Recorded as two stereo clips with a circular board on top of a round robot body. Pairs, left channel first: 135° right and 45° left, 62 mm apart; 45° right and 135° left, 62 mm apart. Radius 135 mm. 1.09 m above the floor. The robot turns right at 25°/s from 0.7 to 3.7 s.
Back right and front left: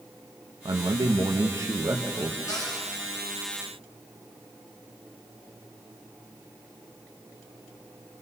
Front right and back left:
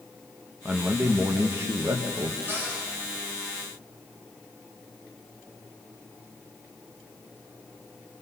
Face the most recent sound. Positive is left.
turn(degrees=-140)